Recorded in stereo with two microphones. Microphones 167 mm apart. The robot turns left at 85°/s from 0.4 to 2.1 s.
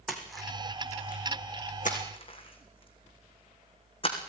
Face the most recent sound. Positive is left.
turn(degrees=35)  # may be behind; listen again after turning